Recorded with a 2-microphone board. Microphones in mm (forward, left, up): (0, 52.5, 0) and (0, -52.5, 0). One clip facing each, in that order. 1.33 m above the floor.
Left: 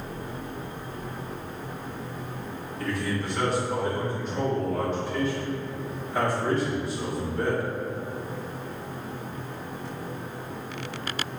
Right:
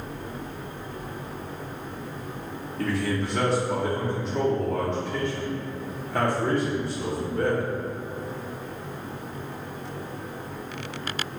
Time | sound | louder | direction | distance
2.8 | a man speaking | right 3 dB | 75° right (ahead or behind) | 2 m